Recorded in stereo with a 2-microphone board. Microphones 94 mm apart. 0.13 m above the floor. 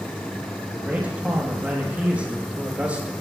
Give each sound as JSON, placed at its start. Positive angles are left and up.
{"t": 0.7, "sound": "a man speaking", "side_deg": -15, "distance_m": 4.5}